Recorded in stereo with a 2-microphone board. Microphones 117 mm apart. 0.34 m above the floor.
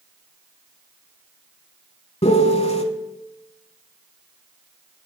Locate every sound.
2.2 s a piano: 60° left (ahead or behind), 0.5 m